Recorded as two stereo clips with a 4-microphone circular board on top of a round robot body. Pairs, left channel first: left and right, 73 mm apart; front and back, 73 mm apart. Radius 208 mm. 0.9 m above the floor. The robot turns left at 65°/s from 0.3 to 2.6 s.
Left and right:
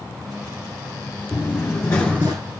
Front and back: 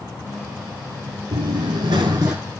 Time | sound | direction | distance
1.3 | running footsteps | 170° left | 1.5 m